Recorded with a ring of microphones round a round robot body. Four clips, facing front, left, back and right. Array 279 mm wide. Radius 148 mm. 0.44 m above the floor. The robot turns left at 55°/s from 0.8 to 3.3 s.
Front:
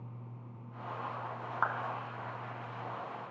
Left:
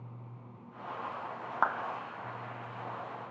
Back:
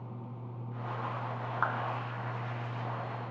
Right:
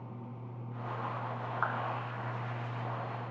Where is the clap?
95° left, 3.5 m; by 1.8 s 85° left, 3.5 m.